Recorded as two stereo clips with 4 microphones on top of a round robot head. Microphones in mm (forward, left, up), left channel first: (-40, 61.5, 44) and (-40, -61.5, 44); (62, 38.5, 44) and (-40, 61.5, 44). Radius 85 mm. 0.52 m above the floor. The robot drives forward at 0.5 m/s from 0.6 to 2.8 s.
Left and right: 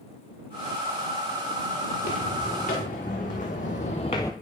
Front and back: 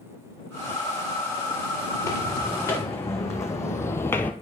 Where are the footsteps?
45° left, 3 m; by 4.3 s 40° left, 0.5 m.